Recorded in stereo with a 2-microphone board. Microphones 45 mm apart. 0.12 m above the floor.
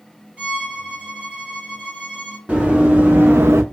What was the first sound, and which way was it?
A violin, 30° right (ahead or behind).